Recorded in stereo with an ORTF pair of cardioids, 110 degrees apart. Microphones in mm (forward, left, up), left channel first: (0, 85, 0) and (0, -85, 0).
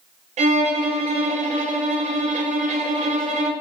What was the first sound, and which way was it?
A violin, 40° right.